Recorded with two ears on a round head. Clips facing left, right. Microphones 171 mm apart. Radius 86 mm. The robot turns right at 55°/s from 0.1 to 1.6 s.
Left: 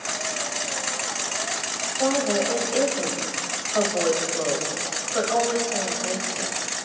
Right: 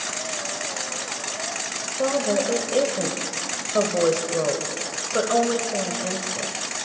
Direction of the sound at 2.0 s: 50° right (ahead or behind).